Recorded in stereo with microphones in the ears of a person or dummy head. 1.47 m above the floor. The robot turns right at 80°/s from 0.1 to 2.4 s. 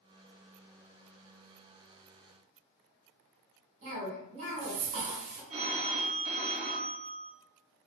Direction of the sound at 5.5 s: 35° right (ahead or behind).